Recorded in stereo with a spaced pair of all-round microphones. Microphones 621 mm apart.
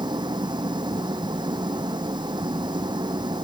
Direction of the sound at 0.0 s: 5° right (ahead or behind).